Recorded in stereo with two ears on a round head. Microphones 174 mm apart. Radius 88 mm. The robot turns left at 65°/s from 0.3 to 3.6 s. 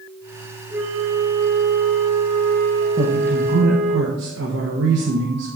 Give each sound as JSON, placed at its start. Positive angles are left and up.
{"t": 0.7, "sound": "a flute", "azimuth_deg": -5, "distance_m": 2.0}
{"t": 3.0, "sound": "a man speaking", "azimuth_deg": -30, "distance_m": 1.1}